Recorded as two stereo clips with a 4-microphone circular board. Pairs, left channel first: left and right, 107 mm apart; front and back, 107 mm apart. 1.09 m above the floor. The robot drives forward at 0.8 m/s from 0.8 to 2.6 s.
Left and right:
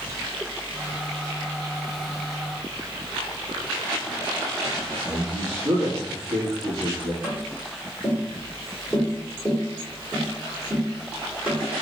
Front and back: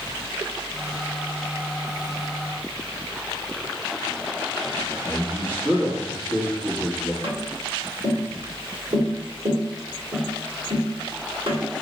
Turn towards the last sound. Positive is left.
turn(degrees=-170)